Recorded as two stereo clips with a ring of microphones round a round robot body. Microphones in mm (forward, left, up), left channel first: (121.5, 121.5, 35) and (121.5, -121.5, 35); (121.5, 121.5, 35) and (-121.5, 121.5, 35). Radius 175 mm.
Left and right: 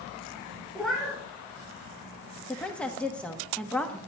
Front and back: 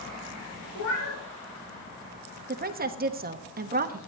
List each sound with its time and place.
0.8 s a cat meowing: straight ahead, 3 m
2.5 s a woman speaking: 175° left, 1.1 m